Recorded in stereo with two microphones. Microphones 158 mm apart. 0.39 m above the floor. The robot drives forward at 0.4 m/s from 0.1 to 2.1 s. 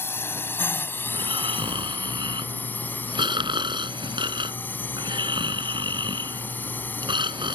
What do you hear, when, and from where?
0.0 s a drone: 15° left (ahead or behind)
1.1 s snoring: 30° right (ahead or behind)